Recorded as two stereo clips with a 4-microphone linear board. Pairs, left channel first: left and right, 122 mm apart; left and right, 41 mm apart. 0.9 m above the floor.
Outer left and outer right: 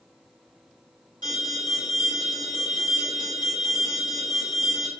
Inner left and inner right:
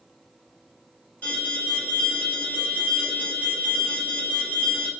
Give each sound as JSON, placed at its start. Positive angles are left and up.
{"t": 1.2, "sound": "an alarm", "side_deg": 35, "distance_m": 1.9}